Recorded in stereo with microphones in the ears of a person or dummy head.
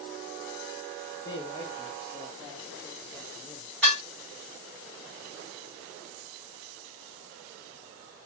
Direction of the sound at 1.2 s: 15° left (ahead or behind).